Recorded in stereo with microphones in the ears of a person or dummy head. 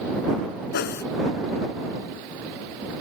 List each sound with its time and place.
0.7 s a whoosh: 55° left (ahead or behind)